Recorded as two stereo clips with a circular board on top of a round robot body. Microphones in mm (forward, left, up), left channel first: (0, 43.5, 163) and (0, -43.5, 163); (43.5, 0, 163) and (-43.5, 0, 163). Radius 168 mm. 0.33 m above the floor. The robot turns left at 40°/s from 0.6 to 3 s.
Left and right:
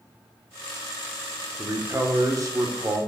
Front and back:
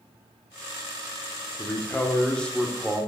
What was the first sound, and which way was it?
A man speaking, 40° right.